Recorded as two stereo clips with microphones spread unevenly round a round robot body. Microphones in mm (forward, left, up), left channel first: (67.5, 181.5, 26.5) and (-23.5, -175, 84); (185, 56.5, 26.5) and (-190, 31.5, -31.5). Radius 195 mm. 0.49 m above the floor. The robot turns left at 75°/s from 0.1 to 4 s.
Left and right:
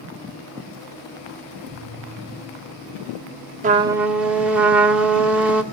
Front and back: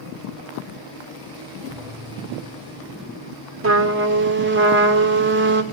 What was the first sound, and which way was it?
A thud, 110° right.